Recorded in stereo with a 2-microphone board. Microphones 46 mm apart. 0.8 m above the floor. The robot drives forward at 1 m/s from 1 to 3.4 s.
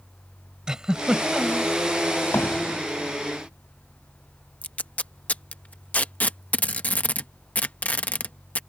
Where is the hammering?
60° left (ahead or behind); by 2.8 s 65° left (ahead or behind).